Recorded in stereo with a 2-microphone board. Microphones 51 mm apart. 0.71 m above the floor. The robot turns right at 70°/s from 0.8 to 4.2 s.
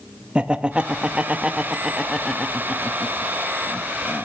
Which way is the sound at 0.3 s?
20° right (ahead or behind).